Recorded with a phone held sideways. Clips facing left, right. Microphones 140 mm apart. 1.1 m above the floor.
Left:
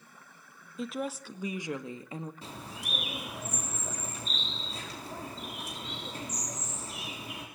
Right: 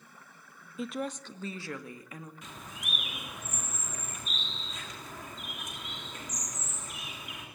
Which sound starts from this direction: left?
A bird, at 2.4 s.